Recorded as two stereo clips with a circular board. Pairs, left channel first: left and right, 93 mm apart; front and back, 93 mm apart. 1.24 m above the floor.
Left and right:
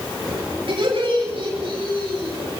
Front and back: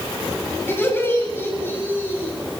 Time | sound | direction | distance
0.7 | laughter | 65° right | 9 m